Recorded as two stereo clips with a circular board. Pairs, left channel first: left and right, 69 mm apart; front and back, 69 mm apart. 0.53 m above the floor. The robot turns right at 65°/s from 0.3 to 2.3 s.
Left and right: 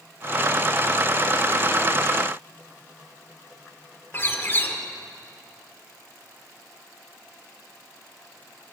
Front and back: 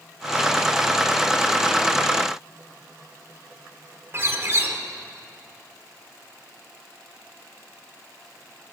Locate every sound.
4.1 s a bird: 135° left, 1.3 m